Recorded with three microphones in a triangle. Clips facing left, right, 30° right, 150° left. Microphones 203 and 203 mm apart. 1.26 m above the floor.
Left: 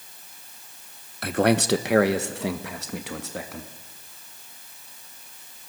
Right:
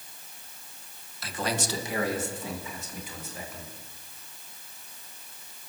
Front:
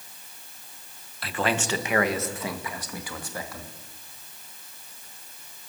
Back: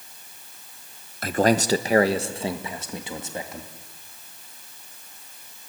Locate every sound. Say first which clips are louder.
1.2 s a man speaking: left 11 dB, back 7 dB; 110° left, 1.1 m; by 3.7 s 80° left, 2.5 m